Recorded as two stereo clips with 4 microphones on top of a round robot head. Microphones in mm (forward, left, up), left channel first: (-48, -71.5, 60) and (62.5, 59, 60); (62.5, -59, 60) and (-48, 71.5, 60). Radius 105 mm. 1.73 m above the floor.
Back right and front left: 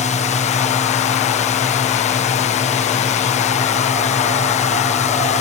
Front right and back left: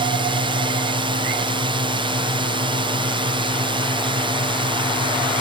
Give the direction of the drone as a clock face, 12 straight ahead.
6 o'clock.